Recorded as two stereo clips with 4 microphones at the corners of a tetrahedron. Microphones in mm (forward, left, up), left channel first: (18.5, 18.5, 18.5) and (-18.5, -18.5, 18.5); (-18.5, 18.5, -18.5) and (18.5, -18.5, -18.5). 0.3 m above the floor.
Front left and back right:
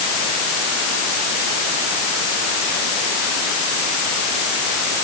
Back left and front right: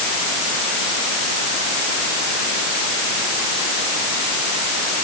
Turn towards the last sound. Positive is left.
No sound to turn to.